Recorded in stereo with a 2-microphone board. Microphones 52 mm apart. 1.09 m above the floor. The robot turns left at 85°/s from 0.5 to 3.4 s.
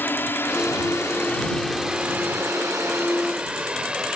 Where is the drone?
45° left (ahead or behind); by 4.2 s 20° right (ahead or behind).